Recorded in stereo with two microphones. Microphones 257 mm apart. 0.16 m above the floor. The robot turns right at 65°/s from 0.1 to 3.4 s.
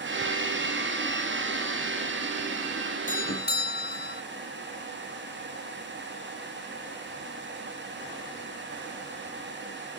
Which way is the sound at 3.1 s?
30° left (ahead or behind).